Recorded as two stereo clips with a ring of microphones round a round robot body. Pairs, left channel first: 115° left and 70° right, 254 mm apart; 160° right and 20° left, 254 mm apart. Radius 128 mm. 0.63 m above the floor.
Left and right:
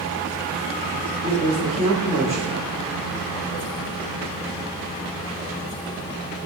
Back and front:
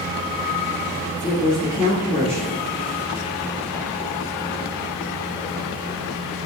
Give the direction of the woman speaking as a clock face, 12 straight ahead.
7 o'clock.